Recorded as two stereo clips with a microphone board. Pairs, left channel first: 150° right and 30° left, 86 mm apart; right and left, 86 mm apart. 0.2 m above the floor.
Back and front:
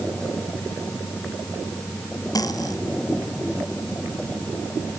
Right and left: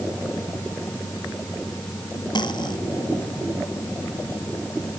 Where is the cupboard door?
No cupboard door in this recording.